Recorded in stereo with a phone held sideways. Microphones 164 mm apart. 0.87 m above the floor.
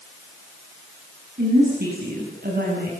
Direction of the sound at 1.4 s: 80° right.